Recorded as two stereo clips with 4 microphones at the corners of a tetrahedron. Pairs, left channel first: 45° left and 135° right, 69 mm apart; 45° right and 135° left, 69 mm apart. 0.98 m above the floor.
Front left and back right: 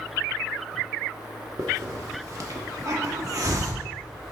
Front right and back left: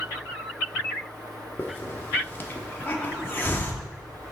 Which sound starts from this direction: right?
A hiss, at 1.6 s.